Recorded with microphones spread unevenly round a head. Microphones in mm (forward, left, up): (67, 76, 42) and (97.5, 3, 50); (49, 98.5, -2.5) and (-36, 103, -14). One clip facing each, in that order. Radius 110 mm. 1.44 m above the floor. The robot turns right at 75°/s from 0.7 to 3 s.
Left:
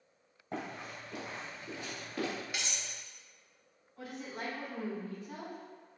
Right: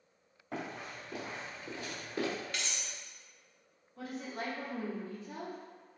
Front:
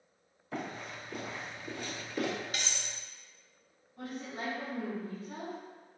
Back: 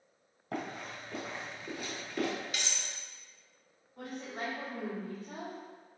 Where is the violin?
No violin in this recording.